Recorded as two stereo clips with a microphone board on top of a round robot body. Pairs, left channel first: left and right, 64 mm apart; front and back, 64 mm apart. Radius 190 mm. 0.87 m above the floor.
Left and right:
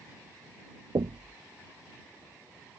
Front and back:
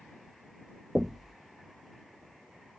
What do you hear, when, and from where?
0.9 s knocking: 95° right